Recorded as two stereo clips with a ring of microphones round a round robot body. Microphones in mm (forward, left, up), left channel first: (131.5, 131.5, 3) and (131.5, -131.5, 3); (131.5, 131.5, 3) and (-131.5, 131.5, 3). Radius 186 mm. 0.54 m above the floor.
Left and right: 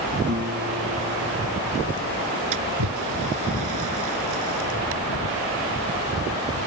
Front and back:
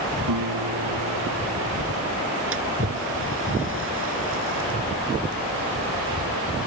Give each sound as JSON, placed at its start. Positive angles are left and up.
{"t": 0.3, "sound": "a guitar", "azimuth_deg": -150}
{"t": 2.5, "sound": "a splash", "azimuth_deg": -120}